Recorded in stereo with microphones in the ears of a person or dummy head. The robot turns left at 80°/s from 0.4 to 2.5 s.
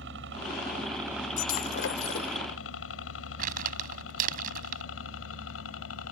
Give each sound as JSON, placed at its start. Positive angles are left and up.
{"t": 0.0, "sound": "a helicopter", "side_deg": -65}
{"t": 1.4, "sound": "breaking glass", "azimuth_deg": 140}
{"t": 3.4, "sound": "crumpling", "side_deg": -45}